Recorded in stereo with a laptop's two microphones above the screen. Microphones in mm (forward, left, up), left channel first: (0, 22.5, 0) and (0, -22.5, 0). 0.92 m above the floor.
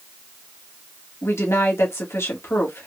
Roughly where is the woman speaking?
Left.